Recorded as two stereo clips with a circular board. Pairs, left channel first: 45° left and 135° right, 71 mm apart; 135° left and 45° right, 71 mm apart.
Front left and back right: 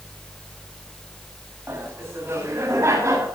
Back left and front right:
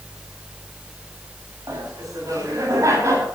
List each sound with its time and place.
1.7 s laughter: 75° right, 7.5 m; by 3.2 s 90° right, 7.5 m